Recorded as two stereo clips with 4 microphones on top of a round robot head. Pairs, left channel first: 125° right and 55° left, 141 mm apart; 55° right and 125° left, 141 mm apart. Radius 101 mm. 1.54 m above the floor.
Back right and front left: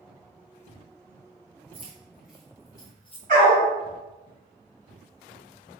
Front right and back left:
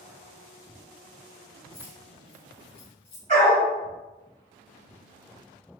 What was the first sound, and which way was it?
Keys jangling, 15° left.